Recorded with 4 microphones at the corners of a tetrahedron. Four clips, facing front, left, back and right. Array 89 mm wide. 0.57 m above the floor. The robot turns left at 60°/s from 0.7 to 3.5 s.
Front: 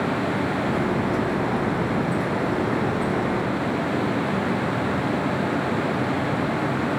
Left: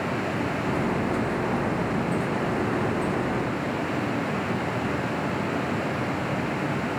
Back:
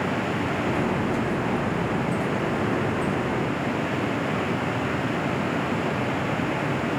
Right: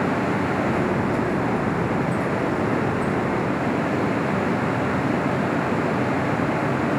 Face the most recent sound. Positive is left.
No sound to turn to.